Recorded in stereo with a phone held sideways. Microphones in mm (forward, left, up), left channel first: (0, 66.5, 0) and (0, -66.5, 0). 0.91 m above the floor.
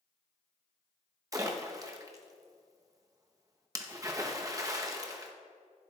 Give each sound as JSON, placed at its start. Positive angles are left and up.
{"t": 1.3, "sound": "a splash", "side_deg": -25, "distance_m": 1.0}